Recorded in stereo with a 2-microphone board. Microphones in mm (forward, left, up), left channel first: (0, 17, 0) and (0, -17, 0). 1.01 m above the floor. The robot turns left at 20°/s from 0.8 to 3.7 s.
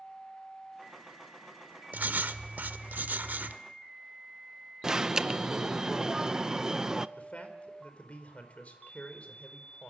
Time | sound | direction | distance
1.9 | writing | 75° right | 1.4 m
4.8 | an alarm | 15° right (ahead or behind) | 0.7 m
7.2 | a man speaking | 45° left (ahead or behind) | 4.5 m